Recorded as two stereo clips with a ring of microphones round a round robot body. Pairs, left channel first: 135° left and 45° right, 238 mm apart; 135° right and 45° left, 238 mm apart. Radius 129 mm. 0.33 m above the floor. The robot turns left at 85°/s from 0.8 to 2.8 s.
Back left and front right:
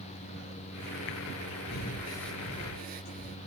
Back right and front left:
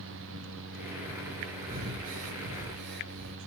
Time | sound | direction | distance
1.7 | breathing | 100° left | 0.6 m